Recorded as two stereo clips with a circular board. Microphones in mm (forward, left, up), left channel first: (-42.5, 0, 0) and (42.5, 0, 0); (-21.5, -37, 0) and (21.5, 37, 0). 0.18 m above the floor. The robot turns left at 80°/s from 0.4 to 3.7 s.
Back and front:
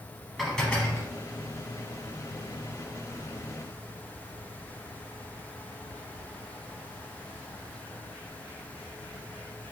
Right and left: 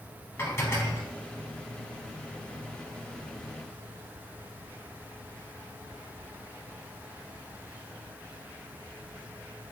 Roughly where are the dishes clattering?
Right.